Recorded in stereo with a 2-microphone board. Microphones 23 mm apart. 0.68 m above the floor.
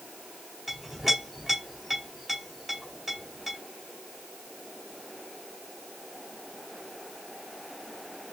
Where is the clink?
5° right (ahead or behind), 1.7 m.